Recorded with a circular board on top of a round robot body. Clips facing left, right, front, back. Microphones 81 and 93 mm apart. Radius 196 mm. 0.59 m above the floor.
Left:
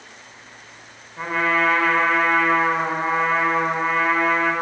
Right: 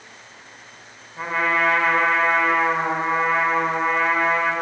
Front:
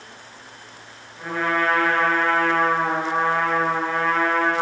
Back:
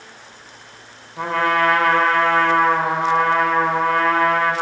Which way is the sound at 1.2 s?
170° right.